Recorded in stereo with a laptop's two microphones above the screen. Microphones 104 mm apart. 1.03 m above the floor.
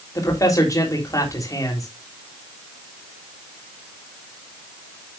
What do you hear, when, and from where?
0.1 s a man speaking: 35° left (ahead or behind), 3 m